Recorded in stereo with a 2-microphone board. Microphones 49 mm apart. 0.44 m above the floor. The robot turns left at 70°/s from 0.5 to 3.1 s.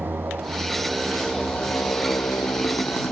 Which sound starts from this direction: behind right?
A motorcycle, at 0.0 s.